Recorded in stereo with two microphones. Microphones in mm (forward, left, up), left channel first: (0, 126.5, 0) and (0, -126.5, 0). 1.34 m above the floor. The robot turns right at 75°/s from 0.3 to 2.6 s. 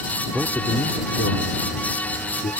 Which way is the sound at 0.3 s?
10° right.